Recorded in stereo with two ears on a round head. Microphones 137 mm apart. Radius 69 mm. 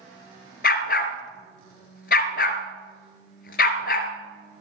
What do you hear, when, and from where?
0.6 s a dog barking: 60° left (ahead or behind), 1.8 m